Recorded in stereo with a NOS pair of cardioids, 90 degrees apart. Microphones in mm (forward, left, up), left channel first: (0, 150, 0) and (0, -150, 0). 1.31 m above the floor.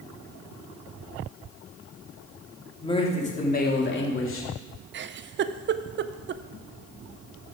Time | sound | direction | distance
2.8 | a man speaking | 15° left | 2.5 m
4.9 | a giggle | 40° right | 0.5 m